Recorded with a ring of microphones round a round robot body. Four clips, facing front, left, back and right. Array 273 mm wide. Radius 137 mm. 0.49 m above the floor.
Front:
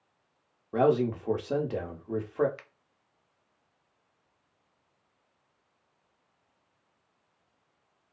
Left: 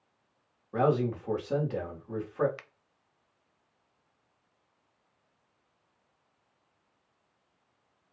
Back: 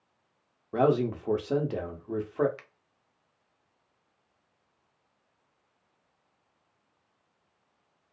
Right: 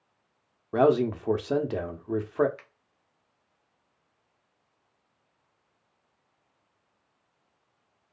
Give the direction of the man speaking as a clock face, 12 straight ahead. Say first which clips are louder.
Right 5 dB, even; 3 o'clock.